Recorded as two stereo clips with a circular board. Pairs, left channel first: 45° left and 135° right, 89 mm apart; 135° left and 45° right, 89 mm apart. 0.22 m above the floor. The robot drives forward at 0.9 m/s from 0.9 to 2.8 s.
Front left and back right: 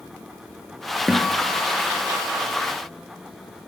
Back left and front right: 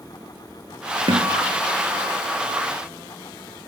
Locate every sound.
1.1 s a guitar: 50° right, 3 m; by 2.6 s 75° right, 2.5 m